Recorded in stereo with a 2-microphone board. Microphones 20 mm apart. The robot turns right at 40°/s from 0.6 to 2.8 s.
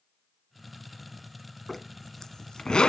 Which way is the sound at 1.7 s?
5° left (ahead or behind).